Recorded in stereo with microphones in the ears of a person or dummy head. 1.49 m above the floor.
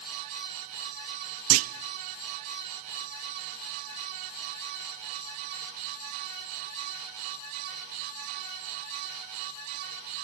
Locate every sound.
1.5 s a clunk: 80° right, 0.7 m